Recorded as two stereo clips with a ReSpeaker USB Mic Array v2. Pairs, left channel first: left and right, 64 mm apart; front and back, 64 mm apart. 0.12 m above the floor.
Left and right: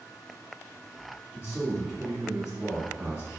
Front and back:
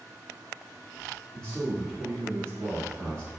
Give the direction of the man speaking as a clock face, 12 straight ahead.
1 o'clock.